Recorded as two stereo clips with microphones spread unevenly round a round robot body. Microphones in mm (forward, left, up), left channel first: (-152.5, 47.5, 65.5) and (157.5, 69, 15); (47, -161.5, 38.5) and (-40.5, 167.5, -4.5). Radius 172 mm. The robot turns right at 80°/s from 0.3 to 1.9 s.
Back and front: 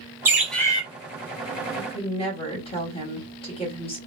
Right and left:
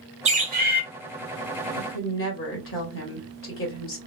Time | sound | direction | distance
0.2 | a bird | 65° left | 1.1 m
1.8 | a woman speaking | 115° right | 1.6 m